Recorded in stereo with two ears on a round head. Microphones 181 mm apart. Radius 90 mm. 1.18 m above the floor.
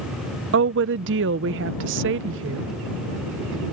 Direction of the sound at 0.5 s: 60° right (ahead or behind).